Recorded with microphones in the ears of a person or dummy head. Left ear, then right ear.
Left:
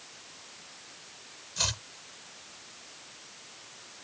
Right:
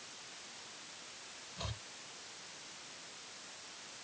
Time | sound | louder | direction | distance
1.6 | chopping | left 16 dB | 75° left (ahead or behind) | ?